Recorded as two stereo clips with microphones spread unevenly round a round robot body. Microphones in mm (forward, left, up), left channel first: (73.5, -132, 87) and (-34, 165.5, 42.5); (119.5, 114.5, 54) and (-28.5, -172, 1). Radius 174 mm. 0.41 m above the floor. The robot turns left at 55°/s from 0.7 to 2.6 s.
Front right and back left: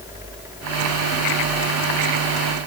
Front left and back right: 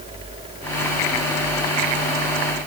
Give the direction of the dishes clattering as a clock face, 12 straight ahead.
I don't hear dishes clattering.